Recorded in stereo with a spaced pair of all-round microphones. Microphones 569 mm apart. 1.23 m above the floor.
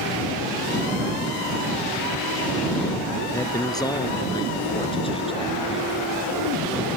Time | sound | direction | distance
3.3 | a man speaking | 5° left (ahead or behind) | ?